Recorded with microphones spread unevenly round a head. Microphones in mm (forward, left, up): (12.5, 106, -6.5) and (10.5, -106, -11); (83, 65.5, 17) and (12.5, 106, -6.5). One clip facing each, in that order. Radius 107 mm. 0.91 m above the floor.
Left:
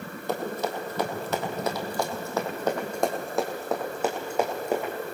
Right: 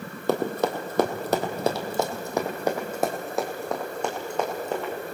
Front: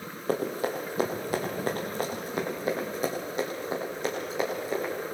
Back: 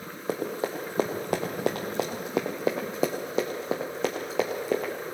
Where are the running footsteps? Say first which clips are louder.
Right 5 dB, front 1 dB; 115° right, 2 m; by 4.9 s 165° left, 4 m.